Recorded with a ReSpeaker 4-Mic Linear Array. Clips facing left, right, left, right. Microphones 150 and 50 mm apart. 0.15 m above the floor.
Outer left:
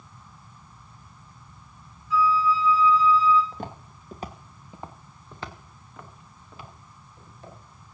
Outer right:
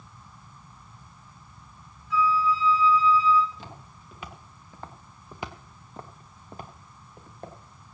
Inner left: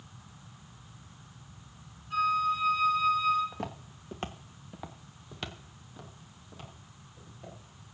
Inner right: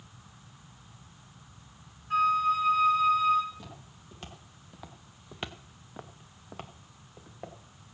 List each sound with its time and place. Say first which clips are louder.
2.1 s a flute: outer left 2 dB, inner right 3 dB; 60° right (ahead or behind), 3 m
3.5 s footsteps: outer left 7 dB, inner left 8 dB; 60° left (ahead or behind), 1.6 m; by 7.6 s 60° right (ahead or behind), 2.5 m